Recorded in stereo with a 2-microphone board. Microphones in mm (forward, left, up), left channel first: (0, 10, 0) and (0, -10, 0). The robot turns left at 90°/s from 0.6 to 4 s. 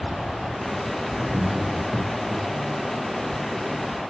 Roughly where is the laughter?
Centre.